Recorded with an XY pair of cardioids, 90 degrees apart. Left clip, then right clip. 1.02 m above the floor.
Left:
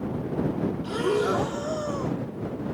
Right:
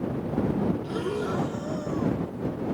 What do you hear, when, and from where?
0.8 s breathing: 60° left